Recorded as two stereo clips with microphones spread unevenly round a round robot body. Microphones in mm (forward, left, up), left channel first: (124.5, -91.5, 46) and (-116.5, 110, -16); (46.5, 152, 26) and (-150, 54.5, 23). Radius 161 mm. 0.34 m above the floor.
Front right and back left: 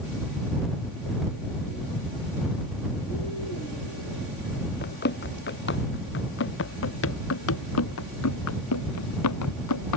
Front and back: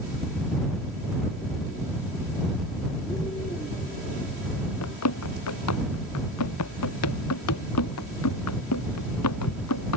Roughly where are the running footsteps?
Ahead.